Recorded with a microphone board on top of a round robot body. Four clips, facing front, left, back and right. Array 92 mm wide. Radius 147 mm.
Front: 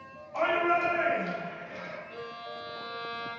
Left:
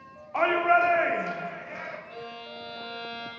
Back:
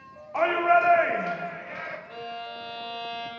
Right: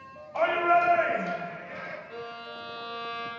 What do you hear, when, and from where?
0.3 s a shout: 130° left, 1.5 m; by 2.0 s 170° left, 1.0 m
2.1 s a violin: 175° right, 1.6 m